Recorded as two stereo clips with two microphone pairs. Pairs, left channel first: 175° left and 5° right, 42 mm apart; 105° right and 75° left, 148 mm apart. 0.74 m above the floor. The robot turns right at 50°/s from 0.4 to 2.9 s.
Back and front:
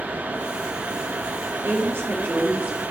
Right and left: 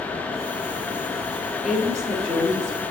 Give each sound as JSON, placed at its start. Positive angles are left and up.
{"t": 1.6, "sound": "a woman speaking", "azimuth_deg": -10, "distance_m": 2.5}